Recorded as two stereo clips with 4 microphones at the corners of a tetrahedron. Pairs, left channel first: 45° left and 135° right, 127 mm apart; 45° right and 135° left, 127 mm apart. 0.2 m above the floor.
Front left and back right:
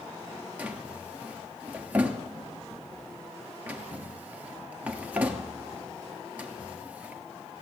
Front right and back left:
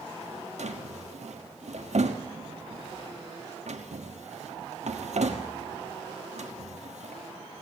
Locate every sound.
0.6 s a drawer: 150° left, 1.1 m